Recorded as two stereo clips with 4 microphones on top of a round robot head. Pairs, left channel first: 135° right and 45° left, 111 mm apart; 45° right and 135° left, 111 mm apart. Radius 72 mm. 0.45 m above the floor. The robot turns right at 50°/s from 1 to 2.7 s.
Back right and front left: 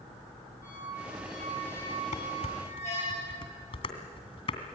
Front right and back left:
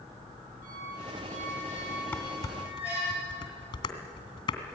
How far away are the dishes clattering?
About 2.5 m.